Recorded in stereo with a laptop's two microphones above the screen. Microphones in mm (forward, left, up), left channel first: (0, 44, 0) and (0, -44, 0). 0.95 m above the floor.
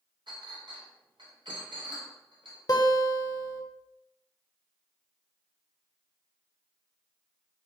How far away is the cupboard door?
I don't hear a cupboard door.